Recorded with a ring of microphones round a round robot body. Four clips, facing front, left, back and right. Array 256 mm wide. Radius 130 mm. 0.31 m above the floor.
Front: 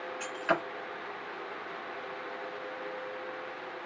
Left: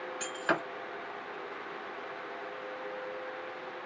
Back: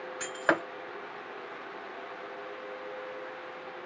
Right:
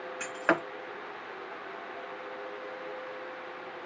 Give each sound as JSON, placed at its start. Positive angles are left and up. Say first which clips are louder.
{"t": 0.2, "sound": "breaking glass", "louder": "right 4 dB, back 2 dB", "azimuth_deg": -140, "distance_m": 2.5}